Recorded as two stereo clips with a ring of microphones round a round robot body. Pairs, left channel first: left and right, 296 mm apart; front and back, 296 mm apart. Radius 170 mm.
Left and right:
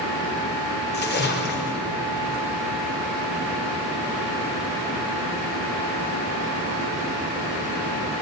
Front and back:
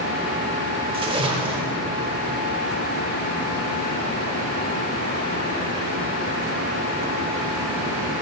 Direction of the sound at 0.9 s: 115° left.